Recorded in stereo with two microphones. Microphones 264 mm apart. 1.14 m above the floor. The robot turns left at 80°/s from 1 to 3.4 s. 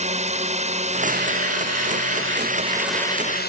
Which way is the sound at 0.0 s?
25° right.